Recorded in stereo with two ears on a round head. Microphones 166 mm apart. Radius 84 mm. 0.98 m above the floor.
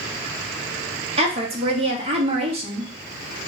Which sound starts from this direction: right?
A woman speaking, at 1.2 s.